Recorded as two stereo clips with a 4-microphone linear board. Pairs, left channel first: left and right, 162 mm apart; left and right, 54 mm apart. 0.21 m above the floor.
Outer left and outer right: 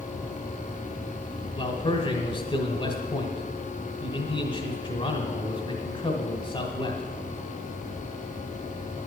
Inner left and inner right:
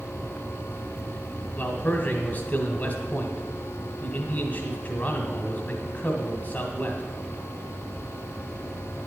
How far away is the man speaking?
About 1.2 m.